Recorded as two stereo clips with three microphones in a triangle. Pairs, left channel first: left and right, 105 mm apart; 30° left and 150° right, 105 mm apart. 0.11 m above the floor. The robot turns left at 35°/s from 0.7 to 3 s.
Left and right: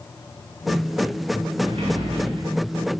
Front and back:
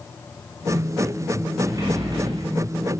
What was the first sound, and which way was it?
A sliding door, 90° right.